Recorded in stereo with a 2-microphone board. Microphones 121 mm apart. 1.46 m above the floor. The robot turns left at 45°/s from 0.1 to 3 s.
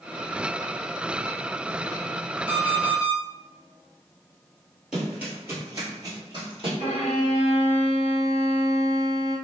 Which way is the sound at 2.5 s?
20° left (ahead or behind).